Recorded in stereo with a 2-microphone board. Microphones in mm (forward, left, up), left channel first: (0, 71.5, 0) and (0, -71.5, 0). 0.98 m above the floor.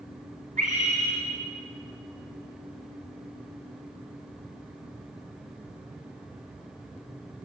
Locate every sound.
0.6 s a scream: 70° right (ahead or behind), 4 m